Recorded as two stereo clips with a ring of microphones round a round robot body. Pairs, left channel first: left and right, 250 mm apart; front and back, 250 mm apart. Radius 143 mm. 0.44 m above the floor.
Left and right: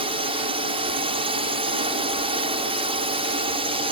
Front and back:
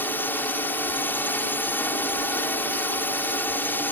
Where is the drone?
70° right.